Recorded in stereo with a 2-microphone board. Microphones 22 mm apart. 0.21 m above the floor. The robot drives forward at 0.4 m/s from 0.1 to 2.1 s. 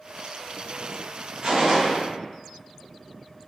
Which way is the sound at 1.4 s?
50° right (ahead or behind).